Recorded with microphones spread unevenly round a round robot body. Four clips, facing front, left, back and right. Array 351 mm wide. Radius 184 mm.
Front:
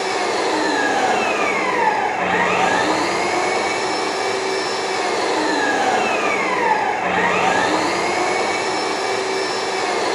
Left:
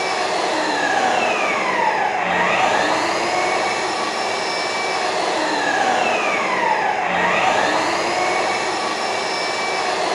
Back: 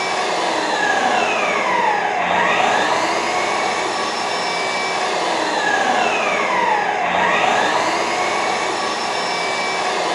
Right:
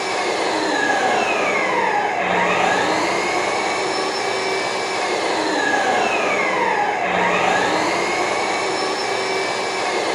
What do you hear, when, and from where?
0.0 s an engine running: 35° right, 2 m